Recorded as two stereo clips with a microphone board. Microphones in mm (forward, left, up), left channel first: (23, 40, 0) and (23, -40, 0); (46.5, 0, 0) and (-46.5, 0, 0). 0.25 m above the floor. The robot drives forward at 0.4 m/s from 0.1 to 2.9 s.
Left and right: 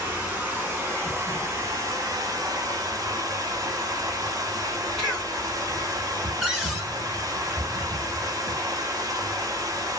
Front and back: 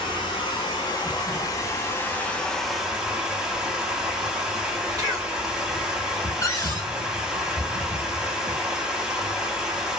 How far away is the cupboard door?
About 1.5 m.